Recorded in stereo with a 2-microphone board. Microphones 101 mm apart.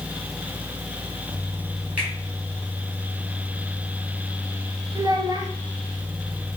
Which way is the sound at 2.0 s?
10° right (ahead or behind).